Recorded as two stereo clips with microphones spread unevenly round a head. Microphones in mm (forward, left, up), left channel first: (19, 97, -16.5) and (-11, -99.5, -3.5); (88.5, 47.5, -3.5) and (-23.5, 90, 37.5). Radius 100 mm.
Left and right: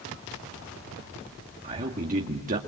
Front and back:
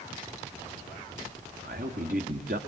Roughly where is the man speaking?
Behind right.